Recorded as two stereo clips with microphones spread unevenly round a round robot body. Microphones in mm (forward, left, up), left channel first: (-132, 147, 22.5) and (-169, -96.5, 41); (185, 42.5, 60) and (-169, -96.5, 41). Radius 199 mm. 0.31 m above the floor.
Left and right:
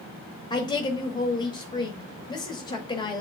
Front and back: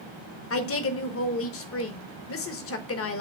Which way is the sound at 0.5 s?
35° left.